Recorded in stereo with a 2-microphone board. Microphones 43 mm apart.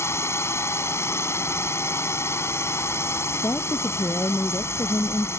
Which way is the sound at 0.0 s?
75° left (ahead or behind).